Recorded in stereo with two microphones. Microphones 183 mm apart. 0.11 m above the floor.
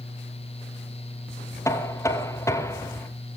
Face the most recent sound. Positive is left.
turn(degrees=15)  # may be behind; listen again after turning